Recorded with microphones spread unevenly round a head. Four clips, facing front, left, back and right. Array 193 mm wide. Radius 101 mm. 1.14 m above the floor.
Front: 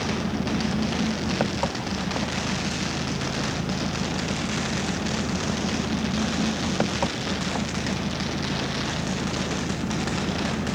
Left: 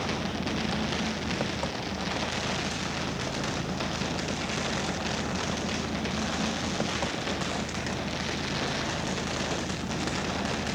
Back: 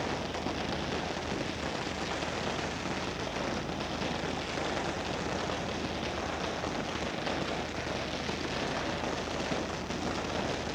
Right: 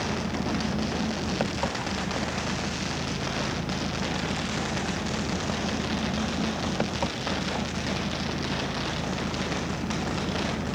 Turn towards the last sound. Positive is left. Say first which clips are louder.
# right 2 dB, front 7 dB
turn(degrees=-10)